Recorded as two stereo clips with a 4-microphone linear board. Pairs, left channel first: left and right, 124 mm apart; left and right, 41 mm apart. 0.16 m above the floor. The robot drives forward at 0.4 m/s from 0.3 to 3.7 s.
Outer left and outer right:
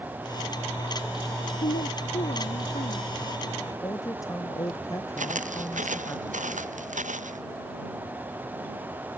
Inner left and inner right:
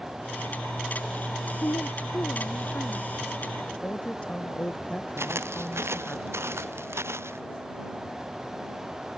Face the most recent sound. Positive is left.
turn(degrees=-85)